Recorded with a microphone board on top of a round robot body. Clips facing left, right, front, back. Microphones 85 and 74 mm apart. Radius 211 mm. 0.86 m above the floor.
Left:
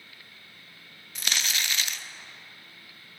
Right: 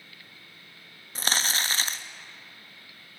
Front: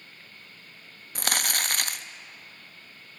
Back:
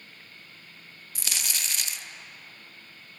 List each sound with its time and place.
1.1 s crumpling: 35° right, 0.7 m